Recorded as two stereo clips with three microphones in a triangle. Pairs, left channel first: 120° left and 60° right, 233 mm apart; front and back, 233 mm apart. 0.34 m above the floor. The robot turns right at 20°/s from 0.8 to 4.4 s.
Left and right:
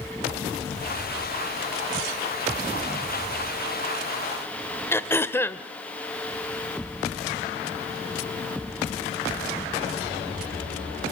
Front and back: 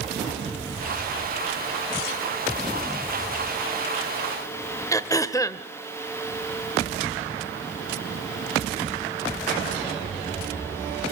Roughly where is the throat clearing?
Ahead left.